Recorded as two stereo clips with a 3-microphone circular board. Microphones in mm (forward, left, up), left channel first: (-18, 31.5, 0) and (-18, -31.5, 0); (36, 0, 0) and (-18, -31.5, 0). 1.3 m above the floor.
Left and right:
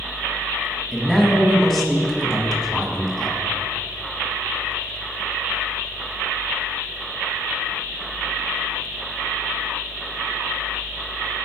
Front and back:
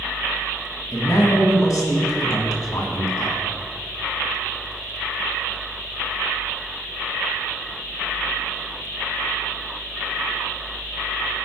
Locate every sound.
0.9 s a man speaking: 5° left, 1.4 m